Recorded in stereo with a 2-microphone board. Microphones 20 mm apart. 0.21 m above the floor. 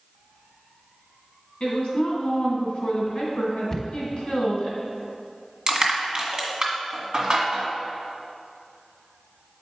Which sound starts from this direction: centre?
A cupboard door, at 3.7 s.